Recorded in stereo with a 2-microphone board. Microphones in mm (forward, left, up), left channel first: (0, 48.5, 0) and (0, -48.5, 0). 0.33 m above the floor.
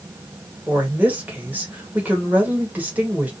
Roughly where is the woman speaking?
Centre.